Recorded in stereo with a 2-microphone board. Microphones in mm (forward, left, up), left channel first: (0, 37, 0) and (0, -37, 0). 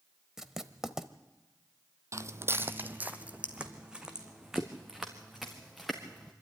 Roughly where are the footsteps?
Right.